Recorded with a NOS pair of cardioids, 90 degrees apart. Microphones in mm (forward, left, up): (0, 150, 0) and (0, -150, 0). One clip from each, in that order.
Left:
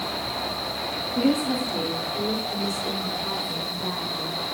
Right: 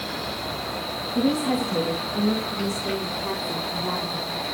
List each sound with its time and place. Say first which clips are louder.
1.1 s a woman speaking: right 1 dB; 60° right, 2.5 m; by 4.5 s 35° right, 6.5 m